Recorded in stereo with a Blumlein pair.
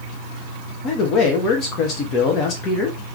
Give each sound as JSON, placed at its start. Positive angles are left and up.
{"t": 0.8, "sound": "a man speaking", "azimuth_deg": 30, "distance_m": 1.6}